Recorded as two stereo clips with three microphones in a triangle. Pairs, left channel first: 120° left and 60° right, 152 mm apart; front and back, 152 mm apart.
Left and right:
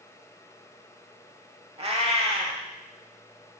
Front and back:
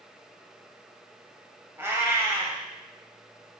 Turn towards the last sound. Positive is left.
turn(degrees=-110)